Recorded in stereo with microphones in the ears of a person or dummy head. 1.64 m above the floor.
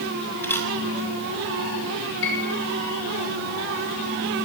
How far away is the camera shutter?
About 3 m.